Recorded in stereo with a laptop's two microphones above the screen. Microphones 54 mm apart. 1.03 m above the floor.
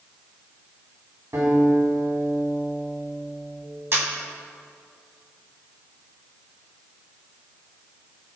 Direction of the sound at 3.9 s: 50° right (ahead or behind).